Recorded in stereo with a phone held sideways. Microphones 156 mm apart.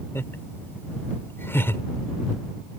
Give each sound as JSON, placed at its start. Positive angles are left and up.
{"t": 0.1, "sound": "laughter", "side_deg": 15}